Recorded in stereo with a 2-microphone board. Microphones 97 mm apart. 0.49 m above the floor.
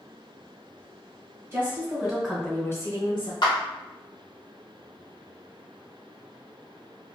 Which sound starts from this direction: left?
A clap, at 3.4 s.